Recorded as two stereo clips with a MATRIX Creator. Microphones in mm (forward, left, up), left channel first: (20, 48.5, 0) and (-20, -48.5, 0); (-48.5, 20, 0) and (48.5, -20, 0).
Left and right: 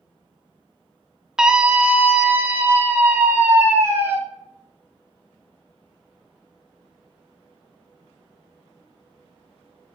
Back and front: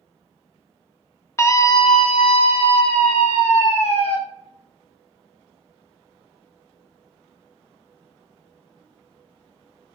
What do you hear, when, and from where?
1.4 s a scream: 170° left, 0.7 m; by 4.2 s straight behind, 2 m